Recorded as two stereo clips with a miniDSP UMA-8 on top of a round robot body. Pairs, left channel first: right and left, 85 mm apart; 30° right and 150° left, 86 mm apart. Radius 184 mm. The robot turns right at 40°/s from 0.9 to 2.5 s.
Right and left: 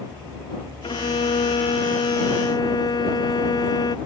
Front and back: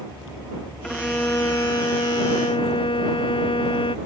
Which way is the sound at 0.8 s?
115° right.